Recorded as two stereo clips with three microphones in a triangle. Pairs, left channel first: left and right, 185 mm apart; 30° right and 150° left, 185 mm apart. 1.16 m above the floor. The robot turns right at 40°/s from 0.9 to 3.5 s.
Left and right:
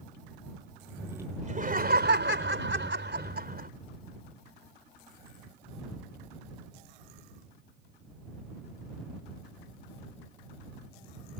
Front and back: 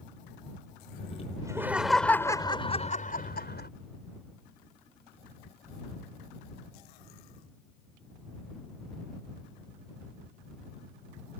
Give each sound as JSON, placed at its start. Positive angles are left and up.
{"t": 1.4, "sound": "laughter", "azimuth_deg": -140}